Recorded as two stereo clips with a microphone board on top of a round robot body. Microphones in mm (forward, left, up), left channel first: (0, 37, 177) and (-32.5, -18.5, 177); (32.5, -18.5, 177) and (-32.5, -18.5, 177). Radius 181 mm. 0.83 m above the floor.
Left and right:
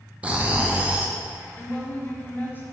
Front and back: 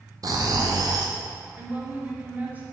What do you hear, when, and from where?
0.2 s snoring: 170° left, 1.0 m
1.6 s a woman speaking: 115° left, 1.6 m